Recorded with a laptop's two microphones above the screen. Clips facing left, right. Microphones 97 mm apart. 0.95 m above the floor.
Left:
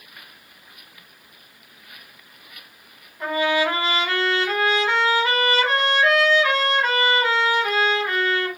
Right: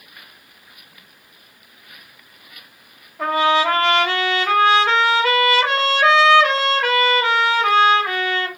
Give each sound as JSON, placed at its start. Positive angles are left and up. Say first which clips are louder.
{"t": 3.2, "sound": "a trumpet", "louder": "right 4 dB", "side_deg": -85, "distance_m": 1.1}